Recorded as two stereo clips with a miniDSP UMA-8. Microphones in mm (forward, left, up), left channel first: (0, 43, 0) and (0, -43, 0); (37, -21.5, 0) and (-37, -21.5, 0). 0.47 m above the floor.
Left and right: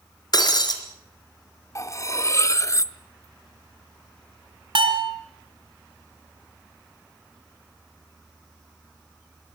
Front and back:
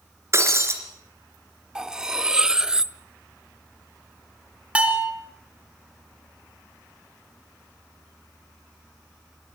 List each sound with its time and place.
0.3 s breaking glass: 130° left, 3 m
1.8 s cutlery clinking: 105° left, 0.6 m
4.8 s a bell: 105° right, 2.5 m